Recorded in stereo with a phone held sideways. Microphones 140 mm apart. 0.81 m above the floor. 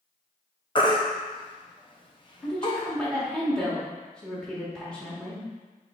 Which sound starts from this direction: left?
A baby crying, at 0.8 s.